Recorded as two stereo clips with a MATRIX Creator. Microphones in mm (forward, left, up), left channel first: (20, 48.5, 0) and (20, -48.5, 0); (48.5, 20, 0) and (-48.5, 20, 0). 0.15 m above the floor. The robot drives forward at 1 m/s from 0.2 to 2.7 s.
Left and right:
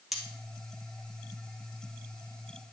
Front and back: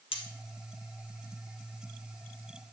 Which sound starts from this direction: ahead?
Cutlery clinking, at 0.1 s.